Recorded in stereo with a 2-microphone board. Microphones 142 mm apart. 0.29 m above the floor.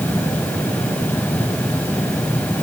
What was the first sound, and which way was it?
Only background noise.